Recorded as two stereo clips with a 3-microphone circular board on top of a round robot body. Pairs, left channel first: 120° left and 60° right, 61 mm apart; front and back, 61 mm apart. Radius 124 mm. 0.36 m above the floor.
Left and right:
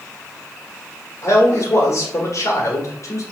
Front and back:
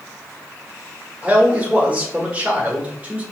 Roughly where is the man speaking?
Behind left.